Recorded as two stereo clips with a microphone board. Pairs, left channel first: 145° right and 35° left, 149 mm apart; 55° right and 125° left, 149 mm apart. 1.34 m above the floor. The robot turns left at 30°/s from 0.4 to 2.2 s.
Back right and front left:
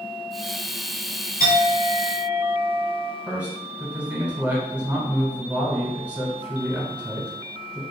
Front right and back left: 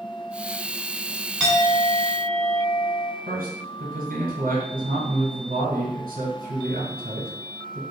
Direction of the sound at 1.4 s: 150° right.